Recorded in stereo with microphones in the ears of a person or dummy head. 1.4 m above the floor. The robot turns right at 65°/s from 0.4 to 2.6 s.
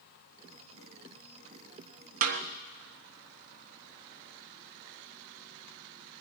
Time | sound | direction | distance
2.2 | a snare drum | 50° right (ahead or behind) | 1.1 m